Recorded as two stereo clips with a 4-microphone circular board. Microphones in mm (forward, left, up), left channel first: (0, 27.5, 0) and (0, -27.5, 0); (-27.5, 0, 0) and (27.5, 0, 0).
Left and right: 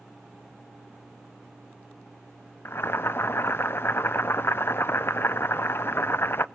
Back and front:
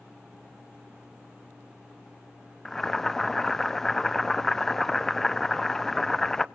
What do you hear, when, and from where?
2.6 s boiling: 100° left, 0.6 m